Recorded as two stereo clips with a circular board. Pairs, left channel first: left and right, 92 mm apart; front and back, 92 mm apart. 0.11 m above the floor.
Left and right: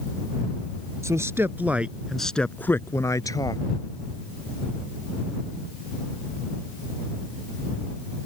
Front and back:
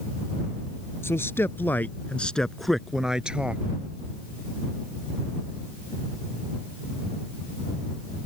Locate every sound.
1.0 s a man speaking: 50° right; by 3.6 s 110° left